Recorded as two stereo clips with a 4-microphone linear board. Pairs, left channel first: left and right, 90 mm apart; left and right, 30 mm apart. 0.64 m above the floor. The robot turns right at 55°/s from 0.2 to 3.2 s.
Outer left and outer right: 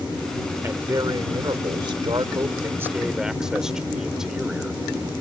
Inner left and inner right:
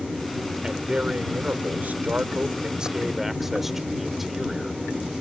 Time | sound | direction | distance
0.6 | a man speaking | 150° right | ?